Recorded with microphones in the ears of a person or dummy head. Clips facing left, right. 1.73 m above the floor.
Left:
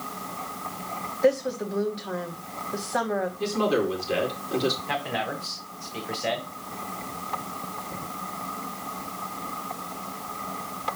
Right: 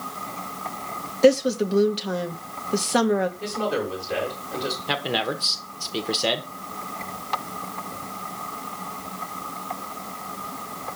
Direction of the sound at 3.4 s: 45° left (ahead or behind).